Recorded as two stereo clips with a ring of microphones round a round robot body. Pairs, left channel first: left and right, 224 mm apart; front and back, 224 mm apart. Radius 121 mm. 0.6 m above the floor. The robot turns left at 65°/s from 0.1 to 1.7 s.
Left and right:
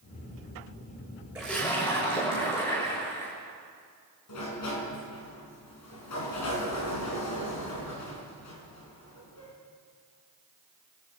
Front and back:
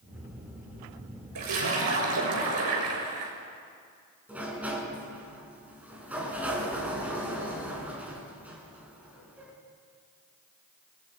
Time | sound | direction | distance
1.4 | a splash | 175° right | 6.5 m
4.3 | a sliding door | 95° left | 4.5 m